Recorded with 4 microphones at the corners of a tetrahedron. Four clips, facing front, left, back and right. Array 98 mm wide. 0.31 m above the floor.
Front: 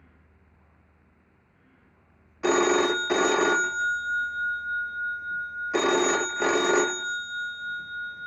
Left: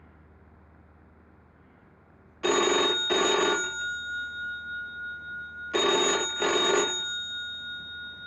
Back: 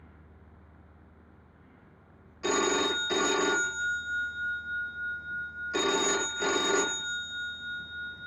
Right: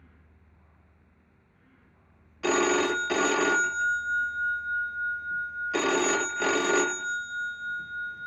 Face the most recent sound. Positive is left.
turn(degrees=5)